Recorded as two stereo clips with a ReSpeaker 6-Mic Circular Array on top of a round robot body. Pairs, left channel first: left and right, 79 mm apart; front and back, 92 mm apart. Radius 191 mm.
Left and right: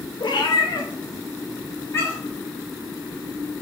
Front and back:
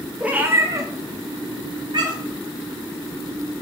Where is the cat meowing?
100° left, 0.8 m; by 2.4 s 150° left, 2.0 m.